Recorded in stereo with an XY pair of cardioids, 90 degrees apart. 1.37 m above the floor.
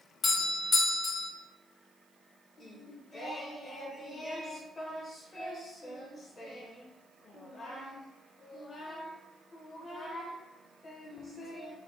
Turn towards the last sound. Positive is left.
turn(degrees=50)